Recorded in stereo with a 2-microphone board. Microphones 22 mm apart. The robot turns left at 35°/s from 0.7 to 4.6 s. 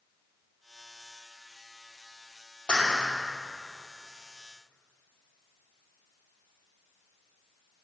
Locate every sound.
2.7 s a clap: 65° left (ahead or behind), 2.5 m; by 3.1 s 60° left (ahead or behind), 2.5 m